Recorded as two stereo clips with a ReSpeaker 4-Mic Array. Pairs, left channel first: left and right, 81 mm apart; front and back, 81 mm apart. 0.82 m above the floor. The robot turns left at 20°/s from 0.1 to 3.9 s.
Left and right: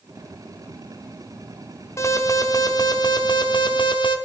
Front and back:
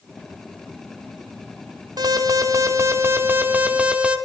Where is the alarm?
145° left, 1.0 m; by 4.2 s 105° left, 1.0 m.